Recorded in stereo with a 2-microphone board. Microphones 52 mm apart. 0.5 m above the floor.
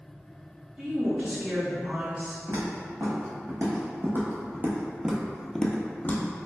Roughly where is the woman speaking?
Centre.